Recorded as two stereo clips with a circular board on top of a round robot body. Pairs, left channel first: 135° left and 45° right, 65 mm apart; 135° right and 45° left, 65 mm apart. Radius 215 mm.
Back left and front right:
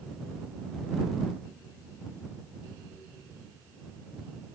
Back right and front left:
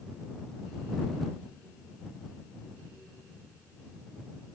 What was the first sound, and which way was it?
Only background noise.